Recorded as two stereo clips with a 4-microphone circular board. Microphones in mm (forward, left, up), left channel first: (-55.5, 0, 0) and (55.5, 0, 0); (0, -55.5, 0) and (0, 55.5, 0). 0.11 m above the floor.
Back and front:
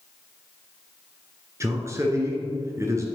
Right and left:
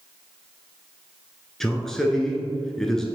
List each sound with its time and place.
1.6 s a man speaking: 10° right, 1.1 m